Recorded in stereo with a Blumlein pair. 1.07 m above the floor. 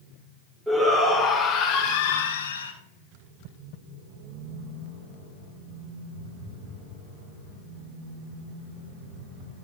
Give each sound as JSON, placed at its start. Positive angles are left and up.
{"t": 0.7, "sound": "a shout", "azimuth_deg": -5, "distance_m": 1.6}